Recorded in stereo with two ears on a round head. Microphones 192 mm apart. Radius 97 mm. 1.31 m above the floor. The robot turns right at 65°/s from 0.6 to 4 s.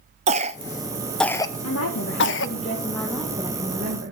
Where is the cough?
30° right (ahead or behind), 0.5 m; by 2.5 s 60° left (ahead or behind), 0.5 m.